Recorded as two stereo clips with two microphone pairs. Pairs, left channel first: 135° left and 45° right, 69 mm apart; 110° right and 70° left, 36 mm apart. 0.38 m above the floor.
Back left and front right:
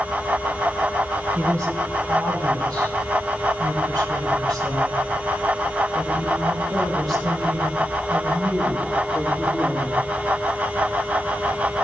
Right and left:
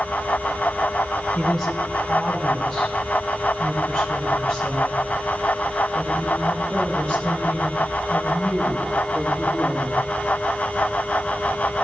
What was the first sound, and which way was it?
A woman speaking, 15° right.